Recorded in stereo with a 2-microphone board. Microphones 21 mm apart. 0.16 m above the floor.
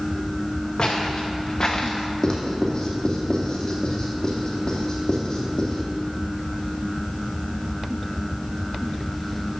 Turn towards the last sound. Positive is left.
turn(degrees=35)  # may be behind; listen again after turning